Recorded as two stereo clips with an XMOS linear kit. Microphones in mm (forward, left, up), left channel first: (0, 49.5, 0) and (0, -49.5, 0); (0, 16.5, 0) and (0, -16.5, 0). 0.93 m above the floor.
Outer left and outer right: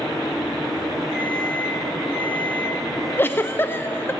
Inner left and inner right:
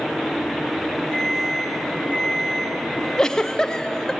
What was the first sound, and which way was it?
An alarm clock, 60° right (ahead or behind).